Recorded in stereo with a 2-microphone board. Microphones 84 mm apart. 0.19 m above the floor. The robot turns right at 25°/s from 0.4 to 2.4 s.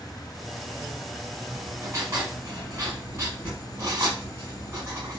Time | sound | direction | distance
1.5 | writing | 25° right (ahead or behind) | 1.8 m